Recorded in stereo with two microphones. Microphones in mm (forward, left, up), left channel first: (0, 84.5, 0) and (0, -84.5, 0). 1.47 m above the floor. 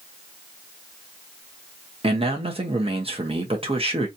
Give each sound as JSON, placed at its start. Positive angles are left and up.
{"t": 2.0, "sound": "a man speaking", "side_deg": -35, "distance_m": 1.3}